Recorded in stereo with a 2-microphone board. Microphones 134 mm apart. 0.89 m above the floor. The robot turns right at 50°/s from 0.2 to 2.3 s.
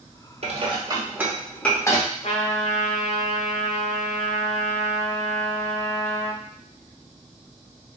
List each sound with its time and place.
0.4 s dishes clattering: 50° right (ahead or behind), 0.8 m; by 2.1 s 30° left (ahead or behind), 0.8 m
2.2 s a trumpet: 50° left (ahead or behind), 1.0 m; by 6.4 s 55° left (ahead or behind), 1.0 m